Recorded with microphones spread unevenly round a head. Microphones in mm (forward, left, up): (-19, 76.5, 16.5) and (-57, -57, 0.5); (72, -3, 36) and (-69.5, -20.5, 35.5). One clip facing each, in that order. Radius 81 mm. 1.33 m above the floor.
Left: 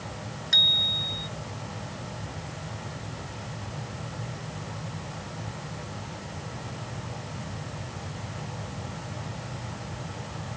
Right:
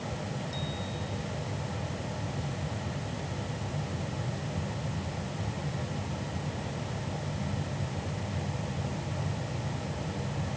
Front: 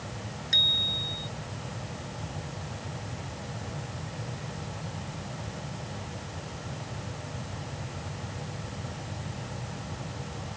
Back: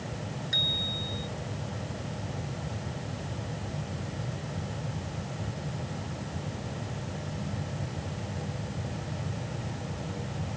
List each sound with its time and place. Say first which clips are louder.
0.5 s a bicycle bell: right 2 dB, back 2 dB; 80° left